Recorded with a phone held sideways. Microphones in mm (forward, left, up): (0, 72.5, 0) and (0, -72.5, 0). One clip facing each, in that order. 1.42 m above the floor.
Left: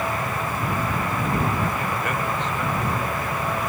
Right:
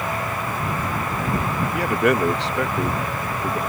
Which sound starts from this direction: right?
A man speaking, at 1.7 s.